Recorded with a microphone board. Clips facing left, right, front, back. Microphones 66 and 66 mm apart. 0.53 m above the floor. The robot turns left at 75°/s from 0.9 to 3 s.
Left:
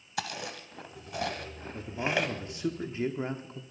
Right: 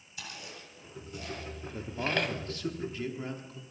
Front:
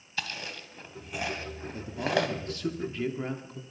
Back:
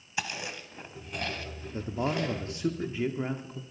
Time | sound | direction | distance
0.2 | chewing | 105° left | 1.4 m
1.7 | a man speaking | 165° right | 0.9 m